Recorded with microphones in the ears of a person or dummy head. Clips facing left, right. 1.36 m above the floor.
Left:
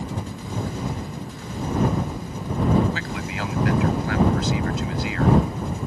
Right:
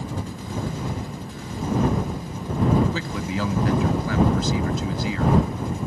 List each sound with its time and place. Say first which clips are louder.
2.9 s a man speaking: right 3 dB; 85° right